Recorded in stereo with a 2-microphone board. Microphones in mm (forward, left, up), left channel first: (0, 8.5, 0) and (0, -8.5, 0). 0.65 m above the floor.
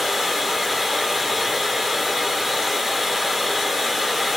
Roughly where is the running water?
Centre.